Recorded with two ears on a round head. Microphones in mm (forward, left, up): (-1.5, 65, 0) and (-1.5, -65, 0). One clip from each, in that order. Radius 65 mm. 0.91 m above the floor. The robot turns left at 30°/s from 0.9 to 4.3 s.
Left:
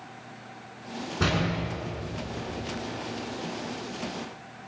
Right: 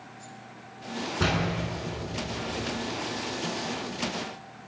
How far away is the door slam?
About 7.5 m.